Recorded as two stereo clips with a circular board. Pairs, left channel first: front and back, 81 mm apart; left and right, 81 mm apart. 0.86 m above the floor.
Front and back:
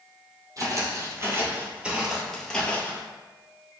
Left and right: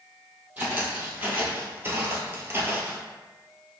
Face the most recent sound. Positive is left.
turn(degrees=-45)